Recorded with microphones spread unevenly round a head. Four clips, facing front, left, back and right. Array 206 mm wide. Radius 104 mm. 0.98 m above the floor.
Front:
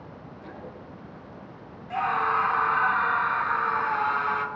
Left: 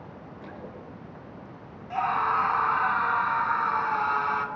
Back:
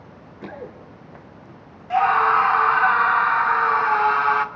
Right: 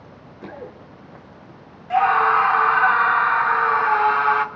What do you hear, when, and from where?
0.4 s running footsteps: 155° right, 3 m; by 1.6 s 145° right, 3.5 m
1.9 s a scream: 125° right, 2.5 m